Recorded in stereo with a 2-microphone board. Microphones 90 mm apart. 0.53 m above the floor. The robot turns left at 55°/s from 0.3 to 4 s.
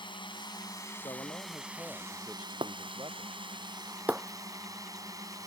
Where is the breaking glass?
90° right; by 5.5 s 15° right (ahead or behind).